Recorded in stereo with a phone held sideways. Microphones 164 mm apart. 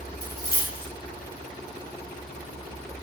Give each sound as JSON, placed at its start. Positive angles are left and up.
{"t": 0.2, "sound": "a dropped coin", "side_deg": 70, "distance_m": 0.9}